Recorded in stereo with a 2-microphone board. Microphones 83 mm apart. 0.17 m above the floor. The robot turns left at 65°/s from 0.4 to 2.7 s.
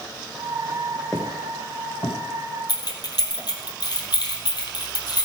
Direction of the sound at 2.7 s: 60° left (ahead or behind).